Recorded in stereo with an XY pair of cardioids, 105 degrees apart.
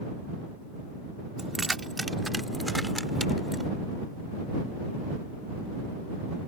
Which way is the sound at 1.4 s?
25° right.